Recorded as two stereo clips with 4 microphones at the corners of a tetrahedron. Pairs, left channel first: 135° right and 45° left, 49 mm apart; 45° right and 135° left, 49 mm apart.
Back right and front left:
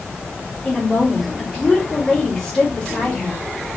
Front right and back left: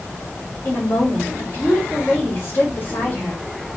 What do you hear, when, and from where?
0.7 s a woman speaking: 65° right, 1.9 m